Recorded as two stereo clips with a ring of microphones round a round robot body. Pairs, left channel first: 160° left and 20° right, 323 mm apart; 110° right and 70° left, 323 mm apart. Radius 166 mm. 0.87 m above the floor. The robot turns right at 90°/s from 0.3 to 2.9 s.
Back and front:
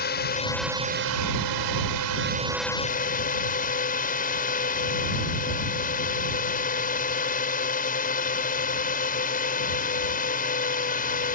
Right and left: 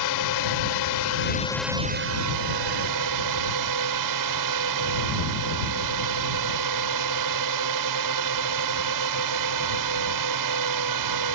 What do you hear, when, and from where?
0.0 s a drone: 140° right; by 11.4 s 90° left